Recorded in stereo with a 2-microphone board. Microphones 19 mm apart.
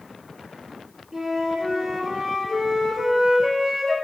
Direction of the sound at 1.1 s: 15° right (ahead or behind).